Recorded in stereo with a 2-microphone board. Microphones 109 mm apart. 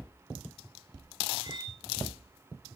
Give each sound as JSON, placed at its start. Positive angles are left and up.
{"t": 1.4, "sound": "cutlery clinking", "side_deg": -50, "distance_m": 5.0}